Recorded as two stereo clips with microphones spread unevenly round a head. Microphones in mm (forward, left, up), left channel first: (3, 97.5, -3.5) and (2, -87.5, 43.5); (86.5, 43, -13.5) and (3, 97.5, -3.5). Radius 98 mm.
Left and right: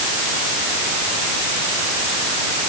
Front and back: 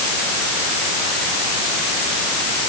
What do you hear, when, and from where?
Only background noise.